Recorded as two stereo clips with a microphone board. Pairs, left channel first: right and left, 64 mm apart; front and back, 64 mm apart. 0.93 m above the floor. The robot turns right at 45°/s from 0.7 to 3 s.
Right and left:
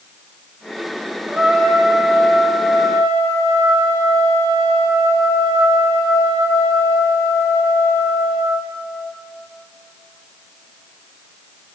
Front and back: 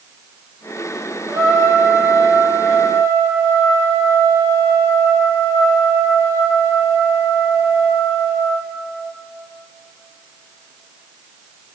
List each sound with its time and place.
1.3 s a trumpet: 155° left, 1.5 m; by 8.7 s 125° right, 1.5 m